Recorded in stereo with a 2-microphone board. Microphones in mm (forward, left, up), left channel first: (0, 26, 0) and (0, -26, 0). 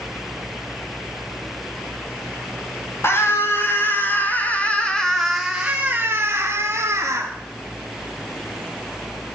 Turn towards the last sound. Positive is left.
turn(degrees=-60)  # may be behind; listen again after turning